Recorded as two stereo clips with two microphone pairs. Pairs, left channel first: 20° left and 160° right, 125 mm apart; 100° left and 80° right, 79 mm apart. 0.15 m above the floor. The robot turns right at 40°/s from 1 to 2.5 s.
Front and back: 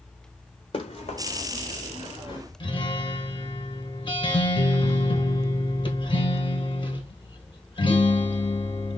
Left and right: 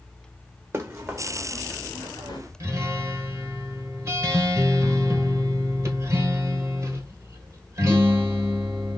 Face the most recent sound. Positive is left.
turn(degrees=-25)